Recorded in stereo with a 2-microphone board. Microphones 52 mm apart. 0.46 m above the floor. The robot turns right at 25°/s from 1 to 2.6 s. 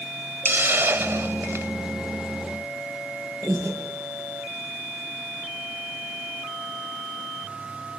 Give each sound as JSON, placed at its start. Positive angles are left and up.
{"t": 0.5, "sound": "a hiss", "side_deg": -50, "distance_m": 0.6}
{"t": 3.4, "sound": "breathing", "side_deg": -60, "distance_m": 8.0}